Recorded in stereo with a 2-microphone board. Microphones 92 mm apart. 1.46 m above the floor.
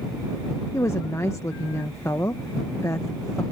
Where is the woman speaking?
30° left (ahead or behind).